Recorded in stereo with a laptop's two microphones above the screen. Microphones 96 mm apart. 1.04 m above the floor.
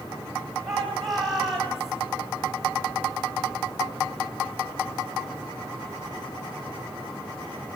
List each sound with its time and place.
0.7 s a shout: 5° right (ahead or behind), 9 m